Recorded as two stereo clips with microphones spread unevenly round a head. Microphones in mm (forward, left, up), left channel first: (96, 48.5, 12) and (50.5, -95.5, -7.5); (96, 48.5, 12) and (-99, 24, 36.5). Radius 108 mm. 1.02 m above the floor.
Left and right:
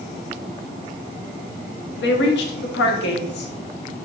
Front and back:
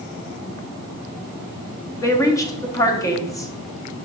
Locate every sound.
2.0 s a woman speaking: 80° left, 1.6 m